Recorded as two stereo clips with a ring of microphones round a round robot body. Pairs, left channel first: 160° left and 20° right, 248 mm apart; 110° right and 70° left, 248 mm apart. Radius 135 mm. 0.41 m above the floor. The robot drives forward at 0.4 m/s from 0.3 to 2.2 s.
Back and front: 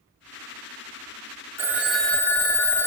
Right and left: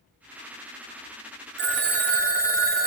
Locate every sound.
1.6 s a phone ringing: 55° left, 0.7 m; by 2.9 s 85° left, 0.7 m